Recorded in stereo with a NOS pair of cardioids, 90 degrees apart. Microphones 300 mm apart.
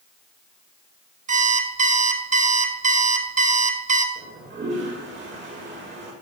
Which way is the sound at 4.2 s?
40° right.